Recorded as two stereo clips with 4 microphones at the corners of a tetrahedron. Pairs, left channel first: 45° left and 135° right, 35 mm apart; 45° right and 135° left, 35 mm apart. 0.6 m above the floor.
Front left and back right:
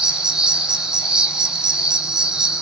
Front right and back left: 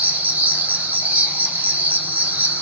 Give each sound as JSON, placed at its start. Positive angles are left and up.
{"t": 0.0, "sound": "an insect", "azimuth_deg": 160, "distance_m": 1.2}